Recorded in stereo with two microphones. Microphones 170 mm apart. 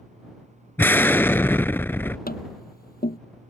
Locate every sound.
0.8 s an explosion: 15° left (ahead or behind)
2.3 s tapping: 70° left (ahead or behind)